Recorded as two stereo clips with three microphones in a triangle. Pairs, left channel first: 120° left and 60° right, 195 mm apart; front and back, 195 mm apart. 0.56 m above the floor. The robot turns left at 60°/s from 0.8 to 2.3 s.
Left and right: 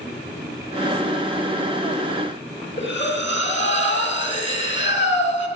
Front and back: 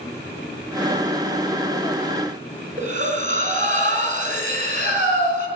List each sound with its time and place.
2.8 s breathing: 130° left, 3.5 m